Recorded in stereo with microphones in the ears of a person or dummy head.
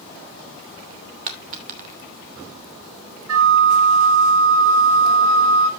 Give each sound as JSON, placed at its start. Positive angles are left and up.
{"t": 1.3, "sound": "a dropped coin", "side_deg": -45, "distance_m": 1.1}
{"t": 3.3, "sound": "a flute", "side_deg": -75, "distance_m": 1.4}